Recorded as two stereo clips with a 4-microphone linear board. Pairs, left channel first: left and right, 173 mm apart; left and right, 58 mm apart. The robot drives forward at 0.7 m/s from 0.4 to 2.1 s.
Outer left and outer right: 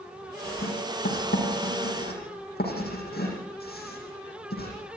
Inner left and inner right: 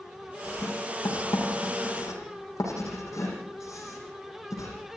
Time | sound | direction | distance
0.4 | writing | 65° left (ahead or behind) | 7.5 m